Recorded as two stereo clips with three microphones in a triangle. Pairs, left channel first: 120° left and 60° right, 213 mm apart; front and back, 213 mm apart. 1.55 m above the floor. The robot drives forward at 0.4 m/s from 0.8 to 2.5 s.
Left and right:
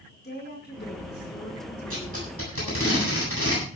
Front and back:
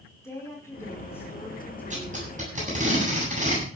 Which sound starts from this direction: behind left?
Tape being pulled, at 1.9 s.